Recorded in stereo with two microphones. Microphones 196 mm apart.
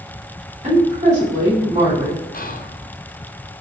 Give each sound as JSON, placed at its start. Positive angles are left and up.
{"t": 0.6, "sound": "a woman speaking", "side_deg": -40, "distance_m": 2.5}
{"t": 2.3, "sound": "whispering", "side_deg": 45, "distance_m": 0.6}